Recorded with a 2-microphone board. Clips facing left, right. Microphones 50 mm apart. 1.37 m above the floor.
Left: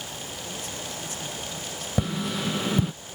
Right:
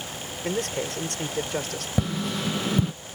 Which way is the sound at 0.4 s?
75° right (ahead or behind).